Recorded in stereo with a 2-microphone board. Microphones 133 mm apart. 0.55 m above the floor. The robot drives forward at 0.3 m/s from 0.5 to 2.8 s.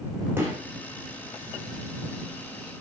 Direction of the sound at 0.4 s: 15° right (ahead or behind).